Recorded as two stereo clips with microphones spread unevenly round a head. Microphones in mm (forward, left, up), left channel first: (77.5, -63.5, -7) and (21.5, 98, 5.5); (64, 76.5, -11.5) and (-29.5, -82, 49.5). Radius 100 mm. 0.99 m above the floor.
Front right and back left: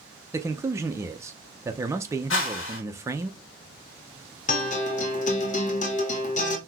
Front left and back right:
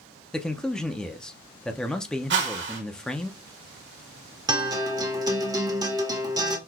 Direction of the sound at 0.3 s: 50° left.